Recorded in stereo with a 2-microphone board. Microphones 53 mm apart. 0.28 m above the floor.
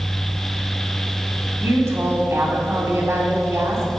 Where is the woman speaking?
45° right (ahead or behind), 1.9 m.